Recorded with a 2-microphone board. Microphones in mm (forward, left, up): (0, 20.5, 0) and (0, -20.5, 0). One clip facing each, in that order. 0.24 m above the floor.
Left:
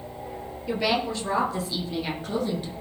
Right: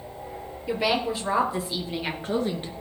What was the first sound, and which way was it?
A woman speaking, 10° right (ahead or behind).